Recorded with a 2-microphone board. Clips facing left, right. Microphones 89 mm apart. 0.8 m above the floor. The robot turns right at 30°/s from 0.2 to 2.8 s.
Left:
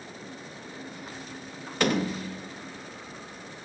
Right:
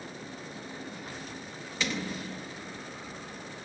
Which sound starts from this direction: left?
A door slam, at 1.8 s.